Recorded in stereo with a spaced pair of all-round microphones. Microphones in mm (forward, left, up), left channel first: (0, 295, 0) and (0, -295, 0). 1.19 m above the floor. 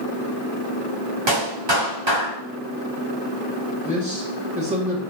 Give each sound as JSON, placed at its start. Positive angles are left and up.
{"t": 1.3, "sound": "a clap", "side_deg": -50, "distance_m": 2.5}
{"t": 3.9, "sound": "a man speaking", "side_deg": -10, "distance_m": 2.0}